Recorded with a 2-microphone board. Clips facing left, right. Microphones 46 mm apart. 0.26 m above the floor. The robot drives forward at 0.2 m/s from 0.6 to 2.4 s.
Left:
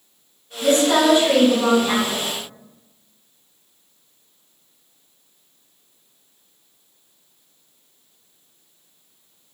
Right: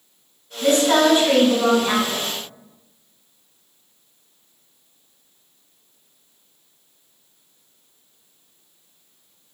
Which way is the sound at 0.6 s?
35° right (ahead or behind).